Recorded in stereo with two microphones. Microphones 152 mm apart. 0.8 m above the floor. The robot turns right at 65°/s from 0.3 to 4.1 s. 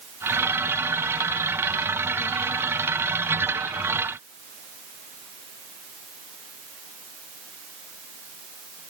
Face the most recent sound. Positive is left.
No sound to turn to.